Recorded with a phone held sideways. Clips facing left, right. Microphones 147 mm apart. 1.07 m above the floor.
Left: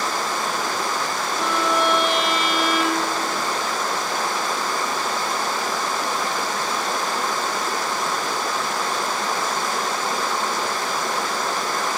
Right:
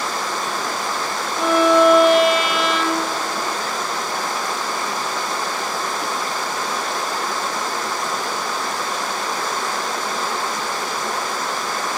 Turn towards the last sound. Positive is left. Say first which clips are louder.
# right 9 dB
turn(degrees=-10)  # may be behind; listen again after turning